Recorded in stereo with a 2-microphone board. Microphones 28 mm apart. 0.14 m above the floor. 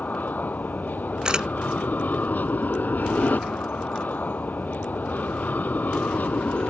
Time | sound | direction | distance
0.0 | an aircraft | 65° left (ahead or behind) | ?
1.2 | a camera shutter | 30° right (ahead or behind) | ?